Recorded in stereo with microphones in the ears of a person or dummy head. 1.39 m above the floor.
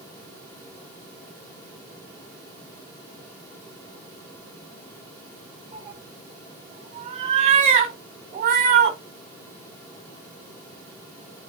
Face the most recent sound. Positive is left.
turn(degrees=-50)  # may be behind; listen again after turning